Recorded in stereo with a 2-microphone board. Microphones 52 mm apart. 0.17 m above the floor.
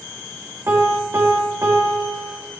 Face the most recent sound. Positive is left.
turn(degrees=-50)  # may be behind; listen again after turning